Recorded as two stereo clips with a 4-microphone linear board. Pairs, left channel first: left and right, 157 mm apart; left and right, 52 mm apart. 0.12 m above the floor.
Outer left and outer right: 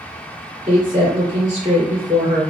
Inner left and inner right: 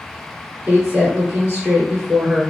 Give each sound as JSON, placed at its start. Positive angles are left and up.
{"t": 0.7, "sound": "a woman speaking", "side_deg": -20, "distance_m": 1.4}